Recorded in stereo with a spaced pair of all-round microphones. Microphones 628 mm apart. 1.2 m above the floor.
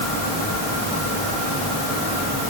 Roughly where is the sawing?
I don't hear sawing.